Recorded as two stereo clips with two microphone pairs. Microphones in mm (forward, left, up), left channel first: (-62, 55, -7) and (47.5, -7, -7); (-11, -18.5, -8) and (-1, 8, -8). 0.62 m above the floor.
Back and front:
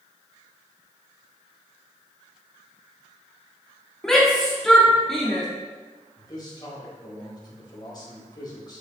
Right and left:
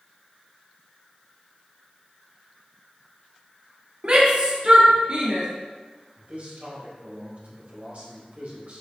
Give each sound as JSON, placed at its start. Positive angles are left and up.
{"t": 4.0, "sound": "a shout", "azimuth_deg": 70, "distance_m": 1.5}
{"t": 6.2, "sound": "a man speaking", "azimuth_deg": 95, "distance_m": 3.5}